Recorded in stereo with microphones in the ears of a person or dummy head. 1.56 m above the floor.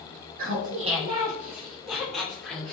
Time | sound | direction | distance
0.4 | laughter | 50° right (ahead or behind) | 0.7 m